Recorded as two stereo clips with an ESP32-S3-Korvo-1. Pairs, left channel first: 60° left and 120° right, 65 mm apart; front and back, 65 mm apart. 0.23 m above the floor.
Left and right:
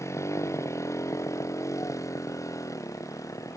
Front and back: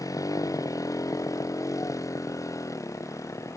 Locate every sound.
0.0 s a motorcycle: 25° left; by 3.6 s 35° left